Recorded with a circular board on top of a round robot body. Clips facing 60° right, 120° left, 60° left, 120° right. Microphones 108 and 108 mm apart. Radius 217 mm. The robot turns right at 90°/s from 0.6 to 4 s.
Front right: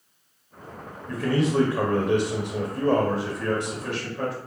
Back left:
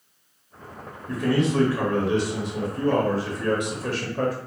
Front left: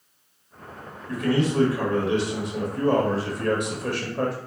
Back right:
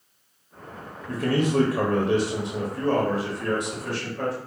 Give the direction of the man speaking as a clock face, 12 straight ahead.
6 o'clock.